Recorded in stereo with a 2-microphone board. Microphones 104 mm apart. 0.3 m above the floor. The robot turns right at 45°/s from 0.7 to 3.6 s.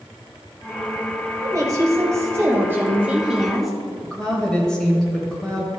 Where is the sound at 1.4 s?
100° right, 1.1 m; by 3.7 s straight ahead, 1.1 m.